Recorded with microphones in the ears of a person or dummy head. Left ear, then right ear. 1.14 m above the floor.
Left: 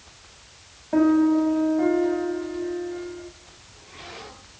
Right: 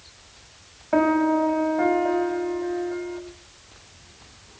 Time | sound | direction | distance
0.9 | a piano | 50° right (ahead or behind) | 2.5 m